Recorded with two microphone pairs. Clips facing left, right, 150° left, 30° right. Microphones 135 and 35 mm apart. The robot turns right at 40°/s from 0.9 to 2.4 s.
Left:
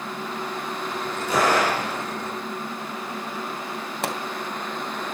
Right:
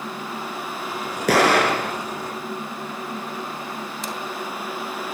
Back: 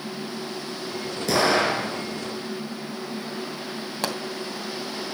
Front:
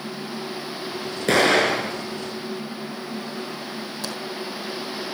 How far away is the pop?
About 2.5 m.